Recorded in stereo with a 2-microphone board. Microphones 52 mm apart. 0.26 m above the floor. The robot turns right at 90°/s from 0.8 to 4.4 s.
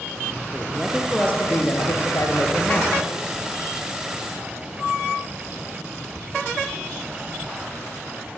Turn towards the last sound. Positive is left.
turn(degrees=-55)